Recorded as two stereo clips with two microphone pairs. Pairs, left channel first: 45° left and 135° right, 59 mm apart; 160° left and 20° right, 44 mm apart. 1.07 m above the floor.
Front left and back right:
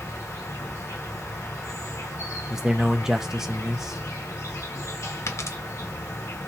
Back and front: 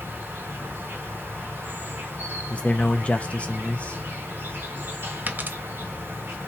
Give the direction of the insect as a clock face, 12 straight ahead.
11 o'clock.